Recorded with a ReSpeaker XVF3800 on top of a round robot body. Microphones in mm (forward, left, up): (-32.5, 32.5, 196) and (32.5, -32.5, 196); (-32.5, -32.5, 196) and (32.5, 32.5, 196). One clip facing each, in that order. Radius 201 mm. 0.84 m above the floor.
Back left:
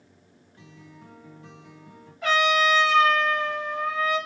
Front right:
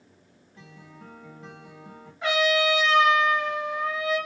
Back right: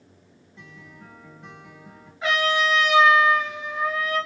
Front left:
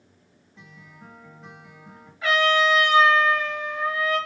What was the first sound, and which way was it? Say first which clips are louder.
A guitar: front right 1 dB, back right 2 dB; 45° right.